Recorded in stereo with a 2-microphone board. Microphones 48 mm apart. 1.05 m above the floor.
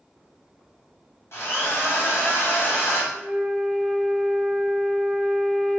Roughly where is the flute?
Centre.